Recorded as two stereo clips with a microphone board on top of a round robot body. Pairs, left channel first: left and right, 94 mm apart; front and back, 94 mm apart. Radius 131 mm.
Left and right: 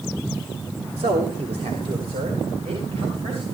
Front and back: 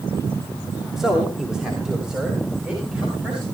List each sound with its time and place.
1.0 s a man speaking: 90° right, 2.5 m; by 3.5 s 100° right, 6 m